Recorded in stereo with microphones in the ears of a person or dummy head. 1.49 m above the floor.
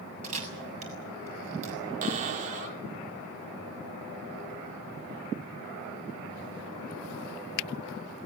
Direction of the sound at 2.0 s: 45° right (ahead or behind).